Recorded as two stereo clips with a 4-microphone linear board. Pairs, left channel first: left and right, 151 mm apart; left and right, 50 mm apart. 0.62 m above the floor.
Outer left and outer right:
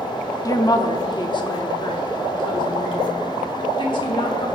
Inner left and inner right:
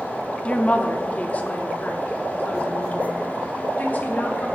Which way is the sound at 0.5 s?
25° left (ahead or behind).